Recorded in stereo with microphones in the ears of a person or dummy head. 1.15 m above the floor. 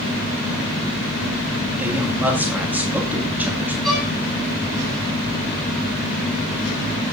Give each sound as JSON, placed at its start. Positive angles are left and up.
{"t": 1.8, "sound": "a woman speaking", "side_deg": -10, "distance_m": 2.0}
{"t": 3.8, "sound": "a violin", "side_deg": 0, "distance_m": 6.0}